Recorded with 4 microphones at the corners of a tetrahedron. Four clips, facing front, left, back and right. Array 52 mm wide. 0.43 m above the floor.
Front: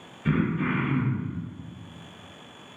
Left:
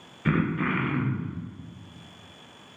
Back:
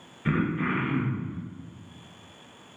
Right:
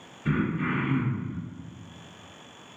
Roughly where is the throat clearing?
Left.